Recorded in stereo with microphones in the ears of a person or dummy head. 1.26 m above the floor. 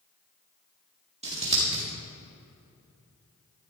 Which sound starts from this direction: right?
Scissors, at 1.2 s.